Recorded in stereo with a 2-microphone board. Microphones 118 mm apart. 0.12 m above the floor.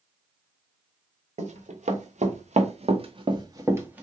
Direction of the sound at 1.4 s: 75° right (ahead or behind).